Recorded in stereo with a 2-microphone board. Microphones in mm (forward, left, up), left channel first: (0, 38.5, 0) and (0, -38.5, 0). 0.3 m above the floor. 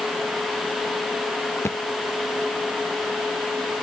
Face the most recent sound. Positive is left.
turn(degrees=35)  # may be behind; listen again after turning